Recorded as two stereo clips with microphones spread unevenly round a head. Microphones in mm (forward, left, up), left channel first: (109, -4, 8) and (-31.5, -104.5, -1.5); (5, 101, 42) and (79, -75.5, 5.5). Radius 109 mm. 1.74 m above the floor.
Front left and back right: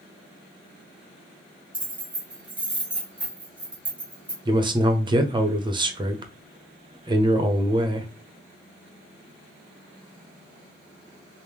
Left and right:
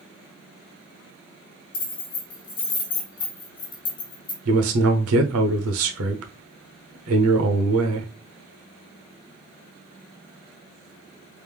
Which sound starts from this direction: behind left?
Keys jangling, at 1.7 s.